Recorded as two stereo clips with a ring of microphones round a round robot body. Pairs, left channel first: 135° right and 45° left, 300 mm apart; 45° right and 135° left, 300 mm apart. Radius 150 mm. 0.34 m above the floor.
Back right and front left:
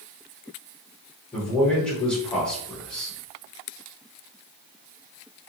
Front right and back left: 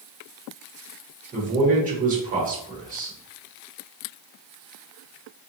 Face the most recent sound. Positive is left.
turn(degrees=145)